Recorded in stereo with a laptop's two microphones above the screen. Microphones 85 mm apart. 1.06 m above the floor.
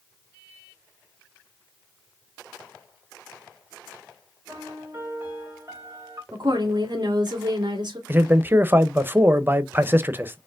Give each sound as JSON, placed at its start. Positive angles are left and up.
{"t": 4.5, "sound": "a piano", "side_deg": -35, "distance_m": 2.5}
{"t": 6.3, "sound": "a woman speaking", "side_deg": -60, "distance_m": 2.0}
{"t": 8.1, "sound": "a man speaking", "side_deg": -25, "distance_m": 0.6}